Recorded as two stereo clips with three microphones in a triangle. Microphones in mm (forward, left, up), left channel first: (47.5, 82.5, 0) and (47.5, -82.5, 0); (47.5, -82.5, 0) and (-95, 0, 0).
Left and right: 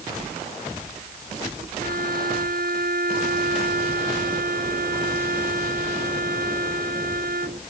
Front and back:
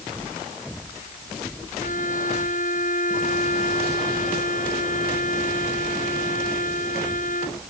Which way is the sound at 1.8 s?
65° right.